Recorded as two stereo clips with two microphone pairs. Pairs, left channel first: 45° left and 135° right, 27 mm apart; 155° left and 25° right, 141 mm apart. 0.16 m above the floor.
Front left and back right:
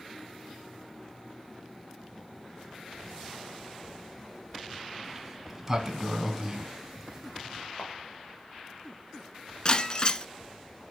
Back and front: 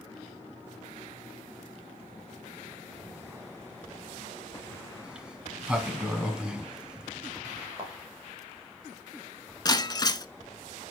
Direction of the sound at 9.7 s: 95° left.